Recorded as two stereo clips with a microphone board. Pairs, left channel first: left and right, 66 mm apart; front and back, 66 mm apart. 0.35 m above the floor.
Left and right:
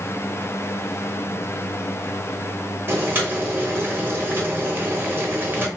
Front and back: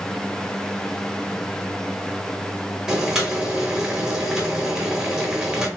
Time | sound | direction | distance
2.9 | boiling | 100° right | 0.8 m